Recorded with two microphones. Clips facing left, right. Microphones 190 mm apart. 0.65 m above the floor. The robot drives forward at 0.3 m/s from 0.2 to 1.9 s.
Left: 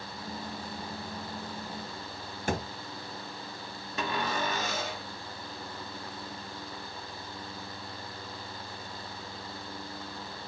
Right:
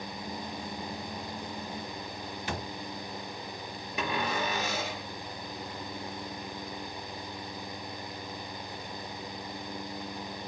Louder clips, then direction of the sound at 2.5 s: Left 6 dB; 45° left (ahead or behind).